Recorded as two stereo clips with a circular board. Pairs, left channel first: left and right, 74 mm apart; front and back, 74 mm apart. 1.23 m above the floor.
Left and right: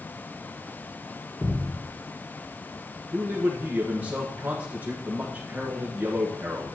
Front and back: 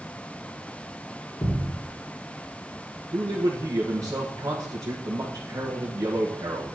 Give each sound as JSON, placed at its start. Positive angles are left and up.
{"t": 1.4, "sound": "a thud", "azimuth_deg": -15, "distance_m": 3.5}
{"t": 3.1, "sound": "a man speaking", "azimuth_deg": -150, "distance_m": 1.4}